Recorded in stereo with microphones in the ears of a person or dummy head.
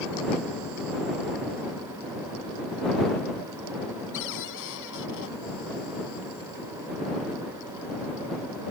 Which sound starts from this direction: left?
A cupboard door, at 4.1 s.